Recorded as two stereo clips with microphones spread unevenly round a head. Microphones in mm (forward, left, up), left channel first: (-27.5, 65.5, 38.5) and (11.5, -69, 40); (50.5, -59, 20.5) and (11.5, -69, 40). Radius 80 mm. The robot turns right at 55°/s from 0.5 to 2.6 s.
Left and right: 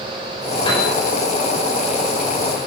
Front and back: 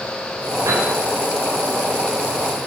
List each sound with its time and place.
0.7 s a piano: 165° left, 5 m; by 0.9 s 175° left, 5 m